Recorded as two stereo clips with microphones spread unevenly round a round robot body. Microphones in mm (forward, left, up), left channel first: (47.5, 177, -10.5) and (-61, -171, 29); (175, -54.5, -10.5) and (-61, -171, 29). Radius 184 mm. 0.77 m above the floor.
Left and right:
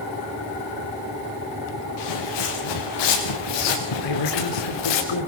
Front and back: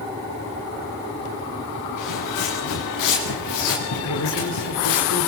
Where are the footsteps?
50° left, 5.5 m; by 5.0 s 55° left, 4 m.